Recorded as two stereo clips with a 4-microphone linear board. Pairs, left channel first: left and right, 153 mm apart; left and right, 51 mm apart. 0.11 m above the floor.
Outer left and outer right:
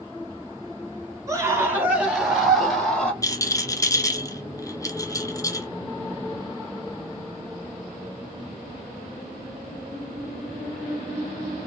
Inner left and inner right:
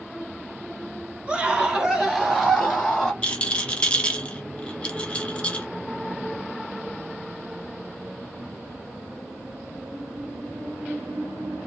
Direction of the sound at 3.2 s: 20° left (ahead or behind).